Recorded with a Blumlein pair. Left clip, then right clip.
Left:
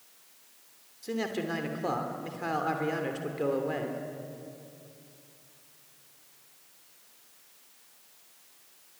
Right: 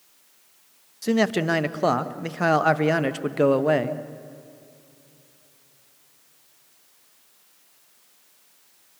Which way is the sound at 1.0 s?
45° right.